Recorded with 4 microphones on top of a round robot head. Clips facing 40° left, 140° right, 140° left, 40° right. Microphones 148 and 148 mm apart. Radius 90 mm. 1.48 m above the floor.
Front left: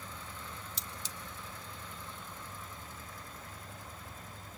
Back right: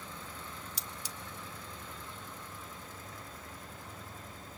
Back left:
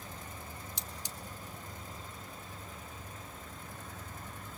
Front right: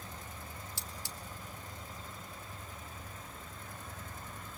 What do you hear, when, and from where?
0.8 s cutlery clinking: 85° left, 0.5 m